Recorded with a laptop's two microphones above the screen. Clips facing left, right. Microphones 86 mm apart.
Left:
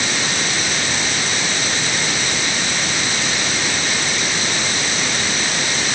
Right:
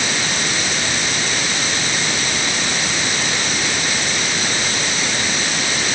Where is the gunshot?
I don't hear a gunshot.